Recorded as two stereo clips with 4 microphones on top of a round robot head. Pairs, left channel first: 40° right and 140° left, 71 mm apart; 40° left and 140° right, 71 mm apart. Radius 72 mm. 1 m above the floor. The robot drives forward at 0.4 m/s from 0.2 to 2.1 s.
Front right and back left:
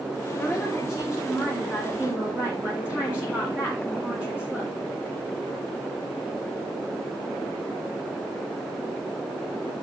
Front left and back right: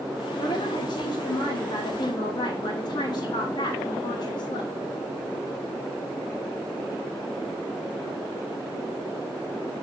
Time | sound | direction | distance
0.4 | a woman speaking | 45° left | 2.5 m